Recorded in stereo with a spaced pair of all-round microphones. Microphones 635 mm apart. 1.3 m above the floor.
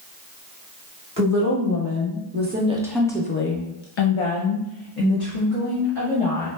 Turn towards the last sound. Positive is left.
turn(degrees=55)  # may be behind; listen again after turning